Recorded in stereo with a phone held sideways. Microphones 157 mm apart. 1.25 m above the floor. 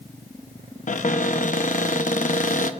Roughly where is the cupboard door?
Left.